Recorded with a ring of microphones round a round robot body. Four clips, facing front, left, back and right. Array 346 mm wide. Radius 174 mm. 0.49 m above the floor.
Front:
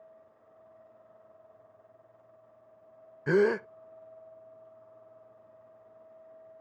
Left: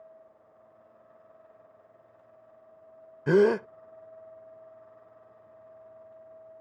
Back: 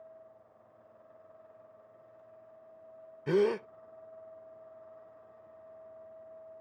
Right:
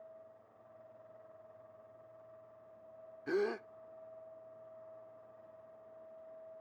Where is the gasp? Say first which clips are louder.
Left 14 dB, front 3 dB; 75° left.